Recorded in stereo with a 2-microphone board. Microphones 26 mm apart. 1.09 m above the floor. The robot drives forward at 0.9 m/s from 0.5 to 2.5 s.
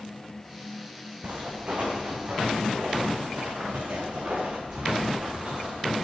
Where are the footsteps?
65° right (ahead or behind), 4 m.